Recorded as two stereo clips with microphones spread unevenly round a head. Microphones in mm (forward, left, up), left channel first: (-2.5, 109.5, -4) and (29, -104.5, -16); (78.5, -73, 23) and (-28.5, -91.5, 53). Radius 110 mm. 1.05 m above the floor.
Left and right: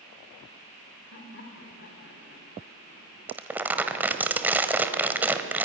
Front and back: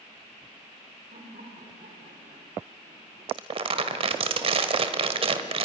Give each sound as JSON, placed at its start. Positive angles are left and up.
{"t": 1.1, "sound": "laughter", "azimuth_deg": 140, "distance_m": 3.5}
{"t": 3.3, "sound": "crumpling", "azimuth_deg": -165, "distance_m": 1.3}